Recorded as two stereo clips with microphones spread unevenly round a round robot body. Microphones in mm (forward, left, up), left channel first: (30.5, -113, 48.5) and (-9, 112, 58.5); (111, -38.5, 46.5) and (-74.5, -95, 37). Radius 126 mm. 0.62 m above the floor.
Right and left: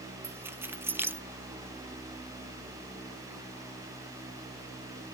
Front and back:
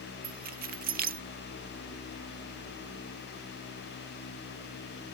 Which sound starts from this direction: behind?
Keys jangling, at 0.2 s.